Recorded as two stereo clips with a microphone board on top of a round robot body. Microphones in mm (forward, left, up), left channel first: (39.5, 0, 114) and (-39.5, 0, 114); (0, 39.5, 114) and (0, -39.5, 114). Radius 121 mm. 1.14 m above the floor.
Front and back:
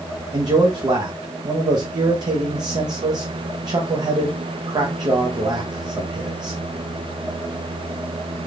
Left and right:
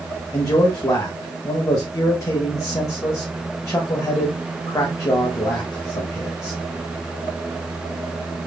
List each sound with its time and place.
0.3 s a man speaking: 145° left, 0.8 m